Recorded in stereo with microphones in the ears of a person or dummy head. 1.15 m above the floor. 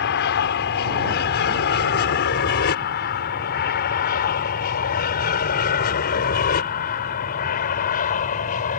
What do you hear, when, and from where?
0.0 s an aircraft: 55° left (ahead or behind); by 8.8 s 40° left (ahead or behind)